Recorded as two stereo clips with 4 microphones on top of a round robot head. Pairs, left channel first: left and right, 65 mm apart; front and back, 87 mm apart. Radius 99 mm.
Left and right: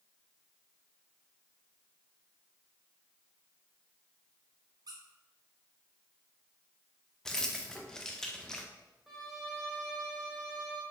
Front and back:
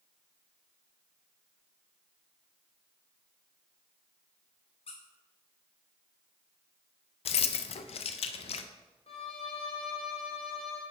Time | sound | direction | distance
4.9 | a squeak | 40° right | 0.5 m
7.2 | keys jangling | 5° left | 0.5 m
9.1 | a violin | straight ahead | 0.8 m